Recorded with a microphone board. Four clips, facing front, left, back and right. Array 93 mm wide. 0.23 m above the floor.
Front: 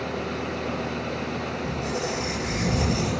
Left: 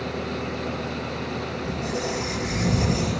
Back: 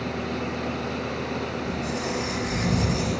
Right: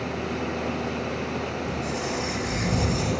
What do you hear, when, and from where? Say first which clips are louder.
1.6 s a squeak: left 1 dB, even; 45° left, 1.0 m